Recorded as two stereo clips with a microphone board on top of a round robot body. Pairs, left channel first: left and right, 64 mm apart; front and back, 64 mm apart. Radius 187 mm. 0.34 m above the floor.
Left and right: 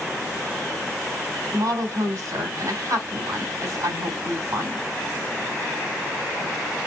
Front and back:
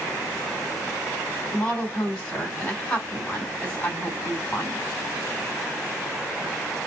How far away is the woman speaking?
About 3.5 m.